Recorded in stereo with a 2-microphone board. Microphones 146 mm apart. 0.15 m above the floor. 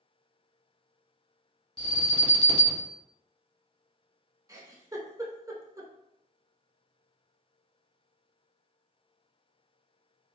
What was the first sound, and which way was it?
An alarm, 30° left (ahead or behind).